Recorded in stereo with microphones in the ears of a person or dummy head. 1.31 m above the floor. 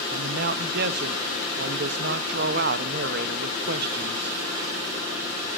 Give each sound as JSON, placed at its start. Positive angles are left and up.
{"t": 0.1, "sound": "a man speaking", "side_deg": -50, "distance_m": 0.6}